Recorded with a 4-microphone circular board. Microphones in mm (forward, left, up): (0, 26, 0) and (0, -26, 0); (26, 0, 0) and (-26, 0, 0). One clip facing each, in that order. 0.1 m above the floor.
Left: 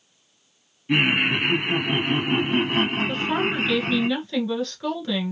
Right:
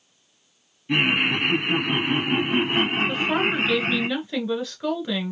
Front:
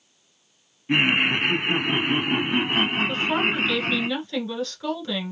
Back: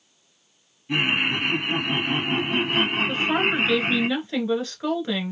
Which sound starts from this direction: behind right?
A woman speaking, at 3.1 s.